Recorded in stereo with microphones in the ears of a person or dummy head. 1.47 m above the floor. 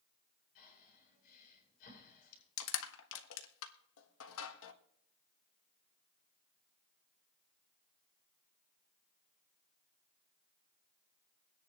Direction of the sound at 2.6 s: 70° left (ahead or behind).